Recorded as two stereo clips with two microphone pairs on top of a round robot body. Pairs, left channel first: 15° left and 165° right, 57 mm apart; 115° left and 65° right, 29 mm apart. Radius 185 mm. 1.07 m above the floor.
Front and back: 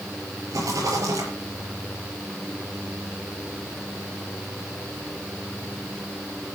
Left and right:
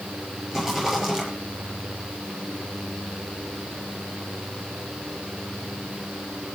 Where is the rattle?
140° right, 6.5 m.